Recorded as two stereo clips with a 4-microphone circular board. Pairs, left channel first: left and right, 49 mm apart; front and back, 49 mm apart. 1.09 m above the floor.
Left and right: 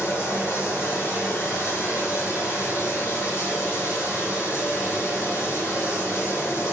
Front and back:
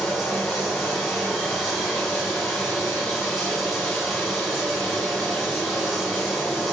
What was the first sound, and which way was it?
Running water, 80° left.